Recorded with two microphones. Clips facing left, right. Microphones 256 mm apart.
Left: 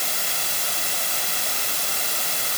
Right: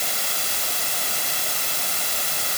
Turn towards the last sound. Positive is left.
No sound to turn to.